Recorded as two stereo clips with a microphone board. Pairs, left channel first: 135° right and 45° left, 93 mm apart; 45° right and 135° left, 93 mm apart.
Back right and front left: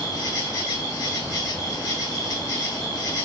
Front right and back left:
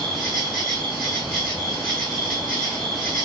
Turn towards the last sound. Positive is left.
turn(degrees=-135)